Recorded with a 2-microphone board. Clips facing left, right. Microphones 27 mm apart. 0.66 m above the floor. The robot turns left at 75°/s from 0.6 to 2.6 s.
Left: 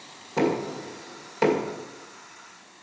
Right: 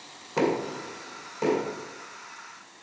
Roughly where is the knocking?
Centre.